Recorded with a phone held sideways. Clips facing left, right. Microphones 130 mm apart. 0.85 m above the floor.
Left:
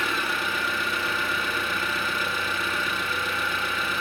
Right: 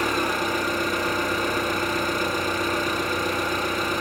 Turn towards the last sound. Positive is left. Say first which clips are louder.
# right 5 dB
turn(degrees=-40)  # may be behind; listen again after turning